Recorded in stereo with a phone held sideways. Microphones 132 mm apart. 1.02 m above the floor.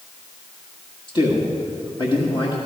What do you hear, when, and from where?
1.1 s a man speaking: 40° left (ahead or behind), 1.7 m